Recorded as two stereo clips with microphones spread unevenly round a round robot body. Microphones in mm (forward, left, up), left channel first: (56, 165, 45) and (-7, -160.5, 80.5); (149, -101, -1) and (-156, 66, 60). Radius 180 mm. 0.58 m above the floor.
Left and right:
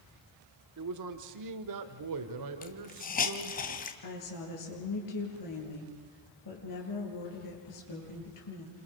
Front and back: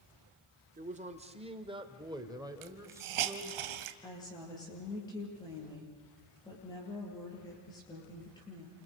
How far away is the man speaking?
About 2.0 m.